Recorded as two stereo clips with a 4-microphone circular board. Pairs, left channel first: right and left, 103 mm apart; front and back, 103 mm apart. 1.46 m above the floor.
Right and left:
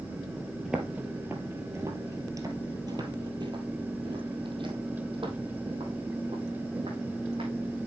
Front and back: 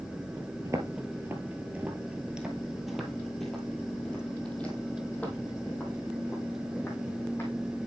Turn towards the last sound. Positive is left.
turn(degrees=65)